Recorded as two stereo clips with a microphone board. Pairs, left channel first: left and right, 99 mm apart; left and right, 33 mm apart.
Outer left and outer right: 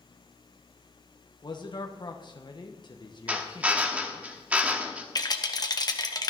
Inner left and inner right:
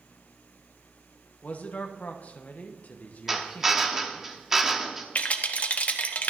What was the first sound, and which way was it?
A man speaking, 45° left (ahead or behind).